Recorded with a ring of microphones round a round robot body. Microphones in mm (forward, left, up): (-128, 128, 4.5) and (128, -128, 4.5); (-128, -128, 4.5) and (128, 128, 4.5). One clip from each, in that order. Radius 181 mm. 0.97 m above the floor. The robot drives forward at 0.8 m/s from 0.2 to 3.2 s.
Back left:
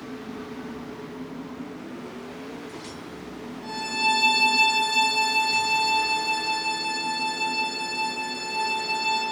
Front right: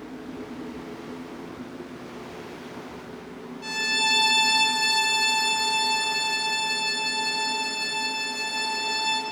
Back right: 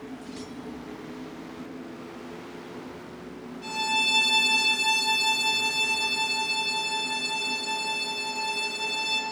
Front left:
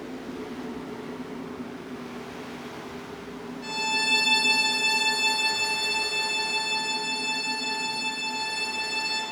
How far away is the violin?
About 3.5 m.